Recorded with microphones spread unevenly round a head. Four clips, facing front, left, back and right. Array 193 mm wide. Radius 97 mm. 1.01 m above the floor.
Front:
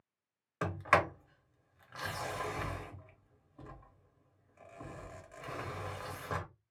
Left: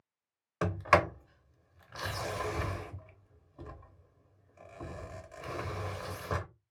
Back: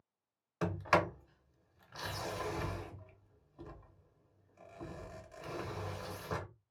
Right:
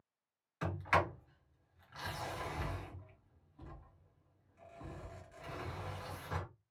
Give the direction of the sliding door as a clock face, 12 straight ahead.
9 o'clock.